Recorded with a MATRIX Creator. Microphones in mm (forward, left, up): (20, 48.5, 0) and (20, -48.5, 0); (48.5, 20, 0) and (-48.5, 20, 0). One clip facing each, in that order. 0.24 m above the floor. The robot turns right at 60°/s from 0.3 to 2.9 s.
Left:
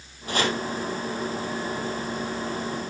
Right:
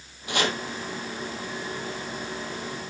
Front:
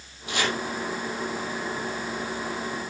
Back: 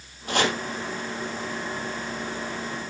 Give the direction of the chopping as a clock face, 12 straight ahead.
7 o'clock.